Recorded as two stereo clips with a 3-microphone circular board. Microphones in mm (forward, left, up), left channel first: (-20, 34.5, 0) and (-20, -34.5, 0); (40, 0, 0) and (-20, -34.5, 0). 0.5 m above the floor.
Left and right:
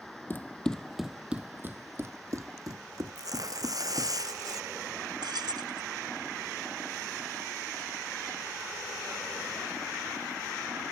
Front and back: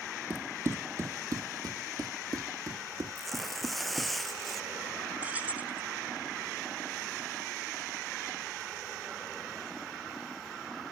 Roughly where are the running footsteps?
Behind left.